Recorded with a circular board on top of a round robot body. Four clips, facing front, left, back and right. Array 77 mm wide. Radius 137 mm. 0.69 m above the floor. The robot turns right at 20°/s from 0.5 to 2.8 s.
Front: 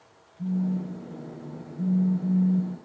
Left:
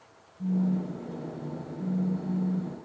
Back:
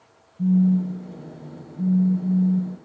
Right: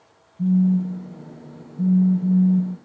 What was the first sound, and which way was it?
A phone buzzing, 125° right.